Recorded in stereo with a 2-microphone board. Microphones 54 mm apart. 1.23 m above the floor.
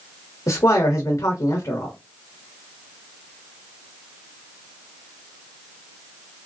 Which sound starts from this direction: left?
A man speaking, at 0.5 s.